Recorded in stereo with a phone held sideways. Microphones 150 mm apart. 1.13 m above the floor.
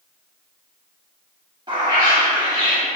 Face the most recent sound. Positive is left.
turn(degrees=-30)  # may be behind; listen again after turning